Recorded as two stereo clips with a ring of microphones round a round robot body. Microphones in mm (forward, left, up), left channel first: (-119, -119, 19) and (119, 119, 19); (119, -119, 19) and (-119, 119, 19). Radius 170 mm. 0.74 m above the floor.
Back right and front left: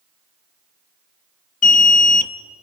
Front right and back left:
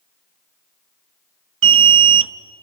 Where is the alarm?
170° left, 0.8 m.